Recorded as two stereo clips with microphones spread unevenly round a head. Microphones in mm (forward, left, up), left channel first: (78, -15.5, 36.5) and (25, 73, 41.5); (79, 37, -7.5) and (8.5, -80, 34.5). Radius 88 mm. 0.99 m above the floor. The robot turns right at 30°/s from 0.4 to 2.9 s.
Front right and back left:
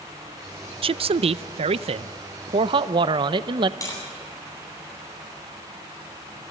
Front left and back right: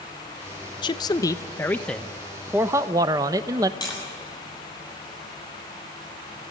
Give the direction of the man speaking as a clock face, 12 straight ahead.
9 o'clock.